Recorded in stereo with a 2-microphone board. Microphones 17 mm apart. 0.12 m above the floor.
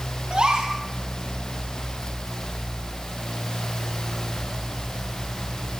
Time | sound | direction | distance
0.3 | a gasp | 70° right (ahead or behind) | 10 m